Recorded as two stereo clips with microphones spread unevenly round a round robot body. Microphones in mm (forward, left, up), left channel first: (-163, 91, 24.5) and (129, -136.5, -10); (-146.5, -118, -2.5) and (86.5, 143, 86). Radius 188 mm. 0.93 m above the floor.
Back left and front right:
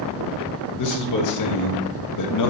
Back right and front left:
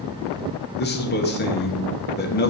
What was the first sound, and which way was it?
A man speaking, straight behind.